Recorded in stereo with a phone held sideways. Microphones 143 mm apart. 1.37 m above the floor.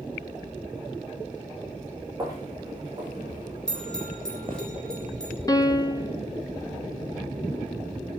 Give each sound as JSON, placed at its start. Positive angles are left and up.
{"t": 2.2, "sound": "footsteps", "side_deg": -25, "distance_m": 8.0}
{"t": 3.7, "sound": "a bell", "side_deg": 5, "distance_m": 7.5}
{"t": 5.5, "sound": "a piano", "side_deg": 25, "distance_m": 1.2}